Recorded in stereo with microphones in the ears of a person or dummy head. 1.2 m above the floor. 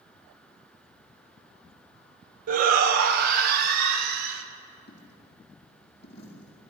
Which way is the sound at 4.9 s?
30° left (ahead or behind).